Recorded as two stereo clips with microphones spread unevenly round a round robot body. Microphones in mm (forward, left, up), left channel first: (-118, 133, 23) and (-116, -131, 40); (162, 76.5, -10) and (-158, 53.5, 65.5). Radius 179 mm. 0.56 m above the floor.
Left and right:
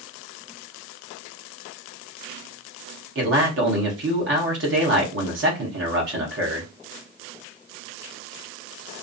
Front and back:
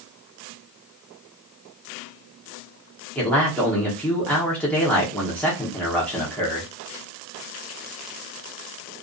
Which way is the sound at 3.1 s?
65° right.